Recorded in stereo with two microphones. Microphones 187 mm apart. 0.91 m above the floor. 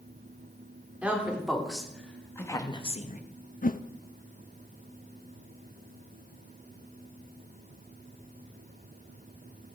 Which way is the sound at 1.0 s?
5° right (ahead or behind).